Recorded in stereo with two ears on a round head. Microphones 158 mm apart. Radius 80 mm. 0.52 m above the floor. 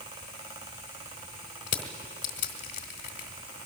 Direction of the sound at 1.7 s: 45° left (ahead or behind).